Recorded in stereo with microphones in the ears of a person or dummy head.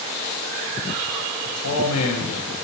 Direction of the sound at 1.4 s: 70° left (ahead or behind).